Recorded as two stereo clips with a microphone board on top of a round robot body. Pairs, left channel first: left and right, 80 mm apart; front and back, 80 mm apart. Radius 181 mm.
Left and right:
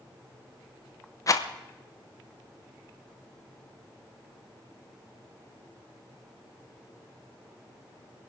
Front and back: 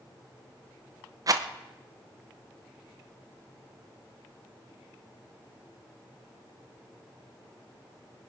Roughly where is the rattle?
Behind left.